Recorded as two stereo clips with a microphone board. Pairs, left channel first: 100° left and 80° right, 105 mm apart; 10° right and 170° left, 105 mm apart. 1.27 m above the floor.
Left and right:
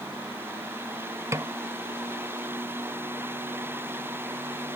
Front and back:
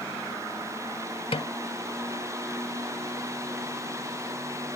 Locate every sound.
1.3 s a snare drum: 20° right